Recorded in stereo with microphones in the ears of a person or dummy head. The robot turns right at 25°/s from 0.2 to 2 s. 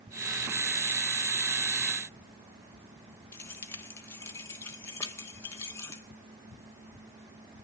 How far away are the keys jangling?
About 1.0 m.